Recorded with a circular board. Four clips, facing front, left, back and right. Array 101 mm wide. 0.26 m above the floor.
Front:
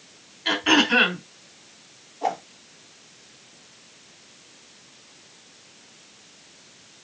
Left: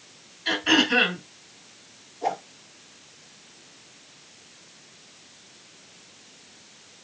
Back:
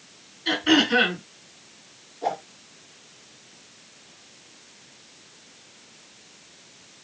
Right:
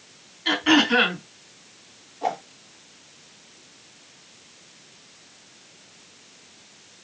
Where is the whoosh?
35° right, 1.6 m.